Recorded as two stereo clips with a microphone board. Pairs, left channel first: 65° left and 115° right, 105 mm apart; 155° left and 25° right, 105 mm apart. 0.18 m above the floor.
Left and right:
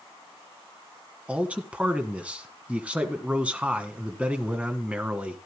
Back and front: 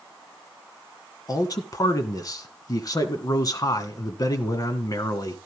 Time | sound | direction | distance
1.3 | a man speaking | 175° left | 1.4 m